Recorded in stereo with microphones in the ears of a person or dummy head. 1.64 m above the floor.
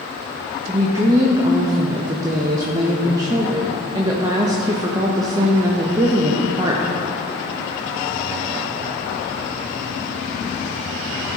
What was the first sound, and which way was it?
A woman speaking, 20° right (ahead or behind).